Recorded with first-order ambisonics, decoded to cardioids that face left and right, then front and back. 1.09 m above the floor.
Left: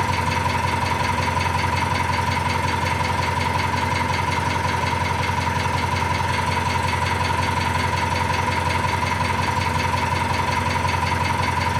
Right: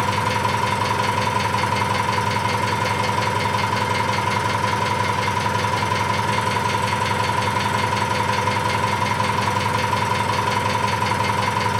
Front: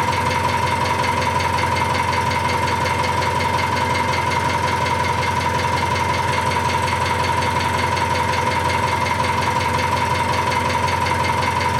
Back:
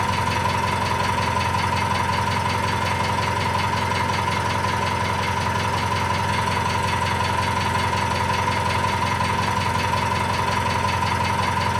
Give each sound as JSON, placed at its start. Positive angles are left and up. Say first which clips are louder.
{"t": 0.0, "sound": "an engine running", "louder": "right 1 dB, front 3 dB", "azimuth_deg": -40, "distance_m": 1.2}